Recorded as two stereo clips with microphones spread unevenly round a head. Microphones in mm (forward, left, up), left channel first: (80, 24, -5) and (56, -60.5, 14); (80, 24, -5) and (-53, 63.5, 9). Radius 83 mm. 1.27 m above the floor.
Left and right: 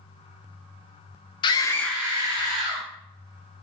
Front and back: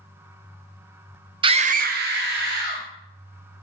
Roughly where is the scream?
Left.